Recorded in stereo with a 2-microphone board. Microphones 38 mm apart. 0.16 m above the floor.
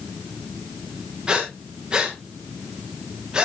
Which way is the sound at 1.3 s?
25° right (ahead or behind).